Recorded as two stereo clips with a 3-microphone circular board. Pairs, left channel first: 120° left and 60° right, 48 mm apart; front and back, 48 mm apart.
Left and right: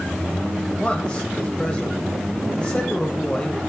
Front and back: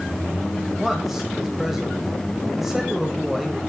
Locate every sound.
0.8 s a man speaking: 100° left, 1.4 m